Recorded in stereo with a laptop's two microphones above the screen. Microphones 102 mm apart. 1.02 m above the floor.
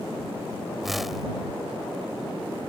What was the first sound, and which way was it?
A whoosh, centre (ahead or behind).